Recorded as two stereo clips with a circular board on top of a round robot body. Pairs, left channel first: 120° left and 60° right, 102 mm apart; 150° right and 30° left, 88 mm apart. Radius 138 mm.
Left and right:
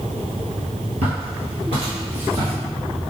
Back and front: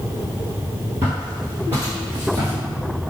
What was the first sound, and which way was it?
Footsteps, 40° right.